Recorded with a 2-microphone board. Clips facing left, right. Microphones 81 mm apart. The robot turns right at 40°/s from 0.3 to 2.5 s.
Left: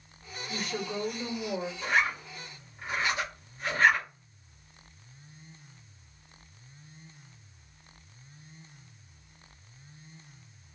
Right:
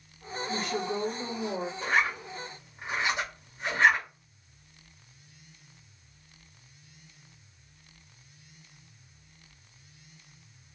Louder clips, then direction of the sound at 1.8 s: Right 1 dB; 45° right (ahead or behind).